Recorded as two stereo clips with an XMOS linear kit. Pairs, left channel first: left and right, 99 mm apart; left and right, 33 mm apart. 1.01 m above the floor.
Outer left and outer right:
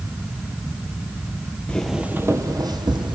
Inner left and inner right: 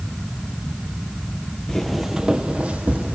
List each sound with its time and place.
1.7 s footsteps: 10° left (ahead or behind), 1.2 m; by 3.2 s 55° right (ahead or behind), 2.5 m